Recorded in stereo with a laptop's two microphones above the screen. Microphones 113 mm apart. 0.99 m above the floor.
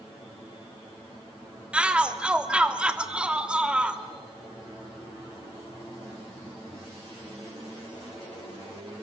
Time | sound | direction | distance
1.7 | a shout | 10° right (ahead or behind) | 2.5 m